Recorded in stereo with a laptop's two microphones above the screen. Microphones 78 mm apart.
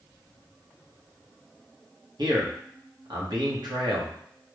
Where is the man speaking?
65° right (ahead or behind), 1.9 m.